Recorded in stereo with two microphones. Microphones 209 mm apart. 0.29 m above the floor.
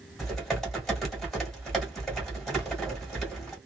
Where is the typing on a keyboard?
Centre (ahead or behind), 1.5 m.